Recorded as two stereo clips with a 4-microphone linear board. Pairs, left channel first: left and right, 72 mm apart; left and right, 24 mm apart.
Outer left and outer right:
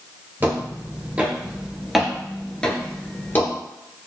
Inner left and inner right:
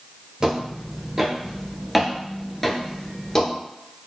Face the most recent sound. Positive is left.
turn(degrees=30)  # may be behind; listen again after turning